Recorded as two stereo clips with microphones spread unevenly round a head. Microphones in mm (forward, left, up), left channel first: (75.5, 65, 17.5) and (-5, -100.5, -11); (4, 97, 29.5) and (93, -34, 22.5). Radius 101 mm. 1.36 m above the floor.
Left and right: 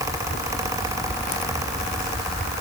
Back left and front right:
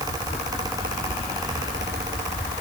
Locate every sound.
Only background noise.